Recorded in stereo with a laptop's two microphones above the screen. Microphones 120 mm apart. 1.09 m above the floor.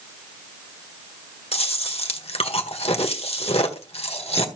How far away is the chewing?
About 1.4 m.